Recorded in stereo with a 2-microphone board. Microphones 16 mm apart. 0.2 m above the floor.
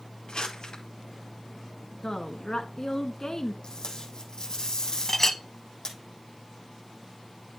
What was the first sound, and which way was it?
Crumpling, 75° left (ahead or behind).